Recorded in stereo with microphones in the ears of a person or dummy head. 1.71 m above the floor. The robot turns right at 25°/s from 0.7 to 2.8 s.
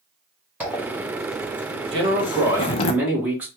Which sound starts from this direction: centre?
A zipper, at 0.6 s.